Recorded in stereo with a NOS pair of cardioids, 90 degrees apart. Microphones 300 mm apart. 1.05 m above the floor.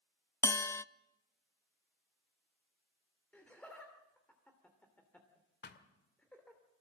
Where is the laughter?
5° left, 2.5 m.